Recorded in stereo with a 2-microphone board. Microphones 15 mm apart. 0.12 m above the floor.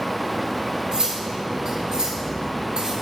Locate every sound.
0.9 s cutlery clinking: 50° right (ahead or behind), 1.3 m